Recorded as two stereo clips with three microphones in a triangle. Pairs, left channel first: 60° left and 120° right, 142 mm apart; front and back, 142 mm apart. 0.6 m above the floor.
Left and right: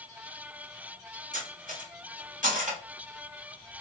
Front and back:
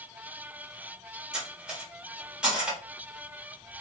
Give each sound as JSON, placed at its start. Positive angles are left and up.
{"t": 1.3, "sound": "cutlery clinking", "azimuth_deg": -95, "distance_m": 1.1}